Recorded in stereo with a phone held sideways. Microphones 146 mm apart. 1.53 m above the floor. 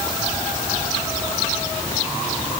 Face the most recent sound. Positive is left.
No sound to turn to.